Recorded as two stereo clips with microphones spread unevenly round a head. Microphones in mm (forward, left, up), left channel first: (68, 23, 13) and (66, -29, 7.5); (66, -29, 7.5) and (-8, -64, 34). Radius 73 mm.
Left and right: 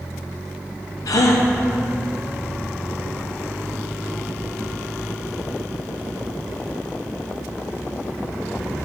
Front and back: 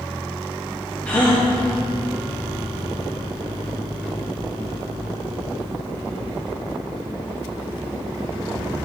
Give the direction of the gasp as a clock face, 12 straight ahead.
9 o'clock.